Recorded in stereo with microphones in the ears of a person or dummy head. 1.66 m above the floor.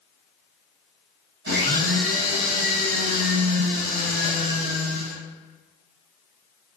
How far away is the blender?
About 1.4 m.